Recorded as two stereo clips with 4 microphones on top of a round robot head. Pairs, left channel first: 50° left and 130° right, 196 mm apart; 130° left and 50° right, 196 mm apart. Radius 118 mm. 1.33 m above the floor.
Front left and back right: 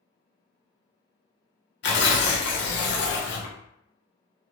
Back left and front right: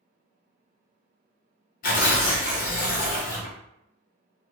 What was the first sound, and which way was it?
Tearing paper, 80° left.